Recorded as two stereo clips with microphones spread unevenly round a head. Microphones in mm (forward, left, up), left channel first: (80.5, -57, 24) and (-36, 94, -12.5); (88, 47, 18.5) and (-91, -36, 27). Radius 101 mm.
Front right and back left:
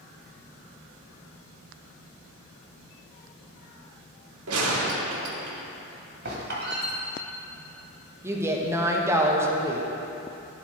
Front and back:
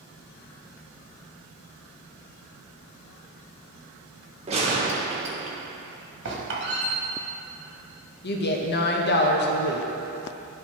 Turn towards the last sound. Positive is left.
turn(degrees=55)